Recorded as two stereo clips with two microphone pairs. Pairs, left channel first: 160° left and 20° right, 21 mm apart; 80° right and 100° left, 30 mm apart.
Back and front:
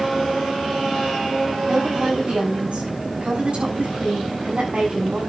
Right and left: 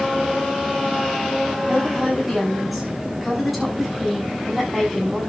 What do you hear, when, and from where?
1.7 s a woman speaking: 10° left, 7 m